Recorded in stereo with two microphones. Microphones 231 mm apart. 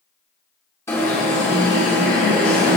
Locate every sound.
0.9 s an alarm: 10° left (ahead or behind), 1.7 m